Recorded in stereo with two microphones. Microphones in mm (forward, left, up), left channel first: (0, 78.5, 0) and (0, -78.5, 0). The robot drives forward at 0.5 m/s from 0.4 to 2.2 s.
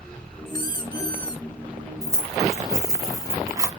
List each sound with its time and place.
0.5 s a squeak: 25° left (ahead or behind), 1.0 m
2.0 s keys jangling: 20° right (ahead or behind), 1.1 m